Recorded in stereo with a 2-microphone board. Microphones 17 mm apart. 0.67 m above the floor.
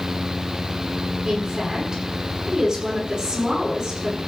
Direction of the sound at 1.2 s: 55° right (ahead or behind).